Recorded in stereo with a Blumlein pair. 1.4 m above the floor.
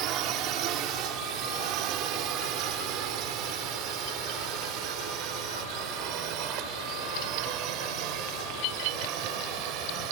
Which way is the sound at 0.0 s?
35° right.